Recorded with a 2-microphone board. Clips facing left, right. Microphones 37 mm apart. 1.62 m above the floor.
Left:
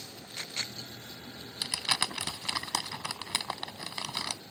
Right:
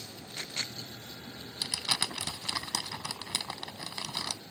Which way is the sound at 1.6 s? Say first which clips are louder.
Left 2 dB; 25° left (ahead or behind).